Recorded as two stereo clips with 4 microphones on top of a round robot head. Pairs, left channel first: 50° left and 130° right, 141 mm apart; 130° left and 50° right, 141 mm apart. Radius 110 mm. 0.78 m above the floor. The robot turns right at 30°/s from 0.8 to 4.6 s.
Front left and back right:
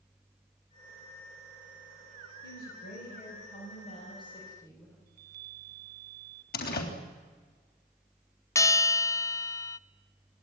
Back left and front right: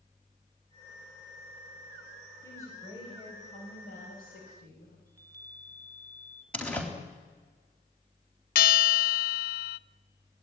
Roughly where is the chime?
Behind right.